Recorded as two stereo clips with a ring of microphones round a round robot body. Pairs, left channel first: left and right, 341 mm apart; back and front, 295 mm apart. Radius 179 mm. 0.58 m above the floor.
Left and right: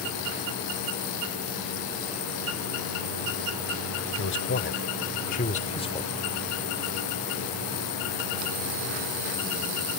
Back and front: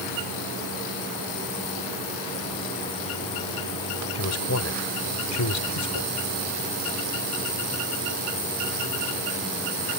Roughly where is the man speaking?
Behind left.